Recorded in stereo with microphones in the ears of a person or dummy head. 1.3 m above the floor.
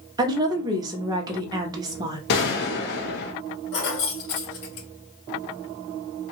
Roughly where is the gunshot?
Left.